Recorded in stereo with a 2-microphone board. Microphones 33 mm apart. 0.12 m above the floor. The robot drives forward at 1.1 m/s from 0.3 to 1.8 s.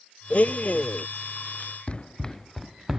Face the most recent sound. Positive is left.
turn(degrees=-15)  # may be behind; listen again after turning